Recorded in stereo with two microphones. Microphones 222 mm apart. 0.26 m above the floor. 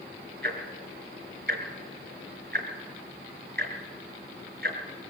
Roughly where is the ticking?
Right.